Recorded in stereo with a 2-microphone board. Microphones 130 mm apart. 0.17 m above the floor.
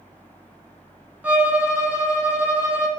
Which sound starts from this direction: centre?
A violin, at 1.2 s.